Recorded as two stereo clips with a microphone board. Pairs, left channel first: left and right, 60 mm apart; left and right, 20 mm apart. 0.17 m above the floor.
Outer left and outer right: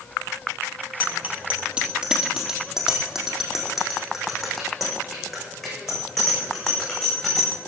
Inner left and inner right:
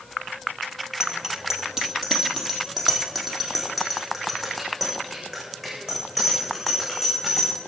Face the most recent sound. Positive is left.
turn(degrees=5)  # may be behind; listen again after turning